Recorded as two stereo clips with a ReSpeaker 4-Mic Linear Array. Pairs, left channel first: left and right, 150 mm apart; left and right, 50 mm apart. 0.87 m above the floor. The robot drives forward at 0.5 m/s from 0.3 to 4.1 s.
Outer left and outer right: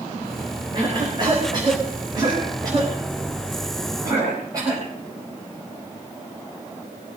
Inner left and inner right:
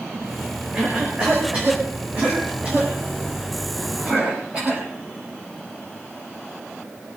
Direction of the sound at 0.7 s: 30° right (ahead or behind).